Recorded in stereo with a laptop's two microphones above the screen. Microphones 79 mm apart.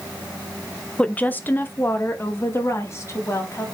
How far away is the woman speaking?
About 0.5 m.